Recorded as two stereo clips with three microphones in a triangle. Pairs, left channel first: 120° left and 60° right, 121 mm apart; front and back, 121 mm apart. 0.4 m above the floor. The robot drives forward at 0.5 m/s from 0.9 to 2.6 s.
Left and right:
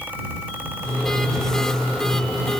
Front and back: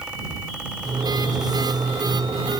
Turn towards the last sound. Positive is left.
No sound to turn to.